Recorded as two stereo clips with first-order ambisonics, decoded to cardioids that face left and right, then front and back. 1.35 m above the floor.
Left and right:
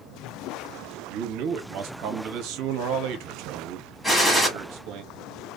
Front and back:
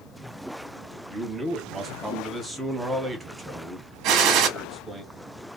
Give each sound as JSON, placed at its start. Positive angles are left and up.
{"t": 1.1, "sound": "a man speaking", "azimuth_deg": -100, "distance_m": 0.9}
{"t": 4.0, "sound": "a gunshot", "azimuth_deg": 165, "distance_m": 1.0}